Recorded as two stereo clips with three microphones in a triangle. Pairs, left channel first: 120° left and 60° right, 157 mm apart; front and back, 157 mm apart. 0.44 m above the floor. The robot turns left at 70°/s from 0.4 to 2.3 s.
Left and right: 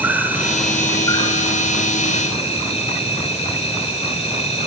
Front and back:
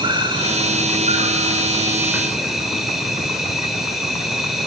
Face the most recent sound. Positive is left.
turn(degrees=90)